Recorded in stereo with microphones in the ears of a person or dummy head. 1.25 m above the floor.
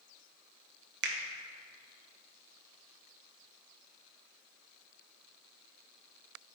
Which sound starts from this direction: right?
A finger snap, at 1.0 s.